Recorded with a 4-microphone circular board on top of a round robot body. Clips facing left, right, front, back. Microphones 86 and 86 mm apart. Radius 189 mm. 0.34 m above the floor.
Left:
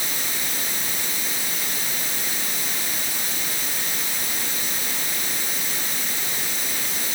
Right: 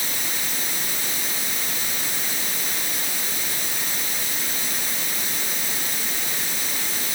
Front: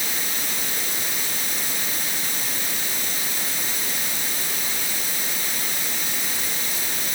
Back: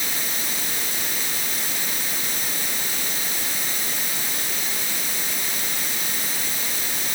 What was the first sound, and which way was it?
Only background noise.